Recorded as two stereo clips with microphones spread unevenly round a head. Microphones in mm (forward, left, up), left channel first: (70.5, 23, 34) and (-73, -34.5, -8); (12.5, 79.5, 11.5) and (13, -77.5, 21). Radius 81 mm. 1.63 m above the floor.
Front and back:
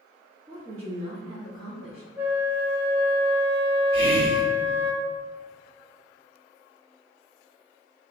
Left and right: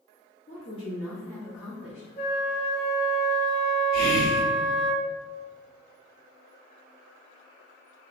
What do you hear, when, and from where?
0.5 s a woman speaking: 125° left, 0.6 m; by 2.1 s 165° right, 1.0 m
2.2 s a flute: 115° left, 0.5 m
3.9 s whispering: 150° left, 1.4 m